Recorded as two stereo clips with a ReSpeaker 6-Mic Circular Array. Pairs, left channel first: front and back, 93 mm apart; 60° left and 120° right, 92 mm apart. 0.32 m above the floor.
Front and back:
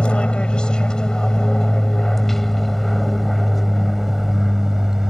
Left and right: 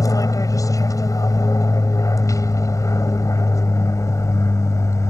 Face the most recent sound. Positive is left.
turn(degrees=100)